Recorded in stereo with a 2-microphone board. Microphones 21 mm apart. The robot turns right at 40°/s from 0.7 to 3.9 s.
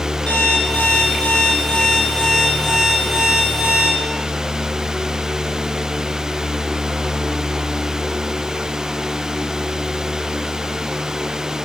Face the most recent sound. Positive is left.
turn(degrees=-140)